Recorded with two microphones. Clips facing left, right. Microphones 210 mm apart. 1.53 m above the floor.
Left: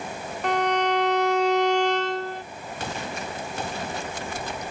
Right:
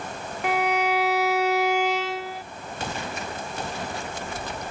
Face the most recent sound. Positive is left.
turn(degrees=-10)  # may be behind; listen again after turning